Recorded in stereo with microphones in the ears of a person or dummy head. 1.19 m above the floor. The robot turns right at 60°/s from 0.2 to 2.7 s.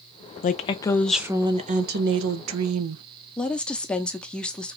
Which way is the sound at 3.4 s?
5° left (ahead or behind).